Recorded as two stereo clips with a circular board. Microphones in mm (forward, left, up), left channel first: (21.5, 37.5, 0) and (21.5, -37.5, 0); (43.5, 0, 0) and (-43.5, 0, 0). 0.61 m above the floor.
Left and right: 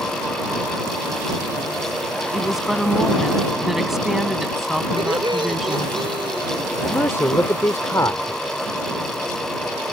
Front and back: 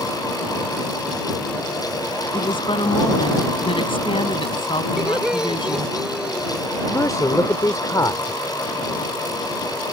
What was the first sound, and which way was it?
A woman speaking, 5° right.